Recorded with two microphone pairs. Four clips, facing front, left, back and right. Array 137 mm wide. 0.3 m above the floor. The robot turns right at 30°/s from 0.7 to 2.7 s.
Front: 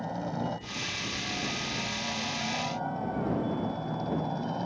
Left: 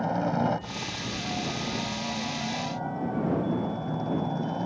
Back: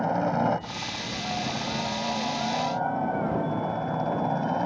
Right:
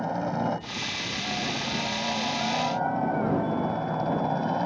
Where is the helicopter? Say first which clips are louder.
Left 1 dB, back 9 dB; straight behind; by 4.7 s 140° right.